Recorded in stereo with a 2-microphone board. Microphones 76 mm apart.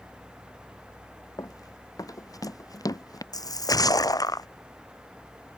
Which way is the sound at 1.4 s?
50° left (ahead or behind).